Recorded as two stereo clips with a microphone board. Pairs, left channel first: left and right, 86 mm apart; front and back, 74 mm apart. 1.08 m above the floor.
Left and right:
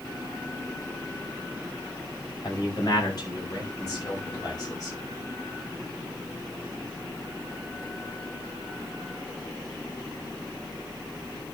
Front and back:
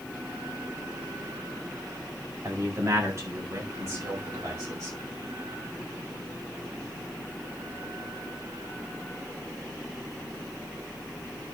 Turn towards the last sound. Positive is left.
turn(degrees=140)